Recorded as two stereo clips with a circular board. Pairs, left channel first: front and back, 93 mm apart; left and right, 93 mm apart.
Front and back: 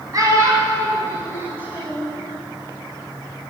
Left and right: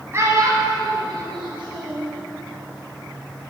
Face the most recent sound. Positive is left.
turn(degrees=-105)